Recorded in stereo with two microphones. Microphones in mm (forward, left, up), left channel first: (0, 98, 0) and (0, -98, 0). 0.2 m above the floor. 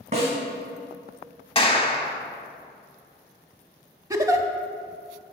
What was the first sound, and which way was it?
A snare drum, 35° right (ahead or behind).